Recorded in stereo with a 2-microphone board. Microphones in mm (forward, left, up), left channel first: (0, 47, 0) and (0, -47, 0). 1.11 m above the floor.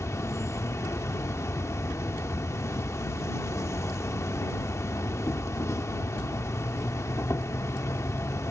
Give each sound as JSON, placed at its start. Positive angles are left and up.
{"t": 0.0, "sound": "an insect", "side_deg": 30}